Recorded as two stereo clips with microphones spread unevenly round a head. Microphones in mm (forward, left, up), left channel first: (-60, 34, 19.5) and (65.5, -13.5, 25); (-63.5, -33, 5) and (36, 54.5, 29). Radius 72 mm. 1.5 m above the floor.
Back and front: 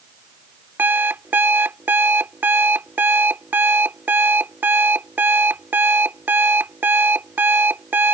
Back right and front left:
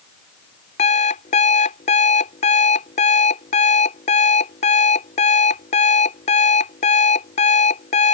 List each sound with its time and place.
0.8 s an alarm clock: 95° right